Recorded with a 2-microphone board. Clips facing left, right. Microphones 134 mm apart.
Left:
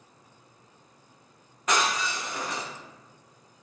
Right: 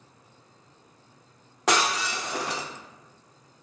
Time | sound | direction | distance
1.7 | breaking glass | 75° right (ahead or behind) | 1.0 m